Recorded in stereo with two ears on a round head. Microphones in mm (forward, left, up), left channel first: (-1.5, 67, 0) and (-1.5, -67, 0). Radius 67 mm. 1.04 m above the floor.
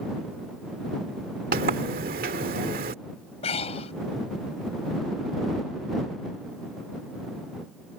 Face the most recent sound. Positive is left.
turn(degrees=45)  # may be behind; listen again after turning